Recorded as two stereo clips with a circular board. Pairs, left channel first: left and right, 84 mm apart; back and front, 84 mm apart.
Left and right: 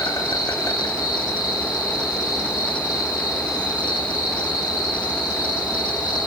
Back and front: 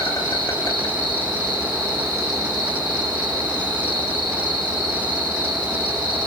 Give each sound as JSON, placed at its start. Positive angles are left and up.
{"t": 0.0, "sound": "an insect", "azimuth_deg": 135, "distance_m": 8.5}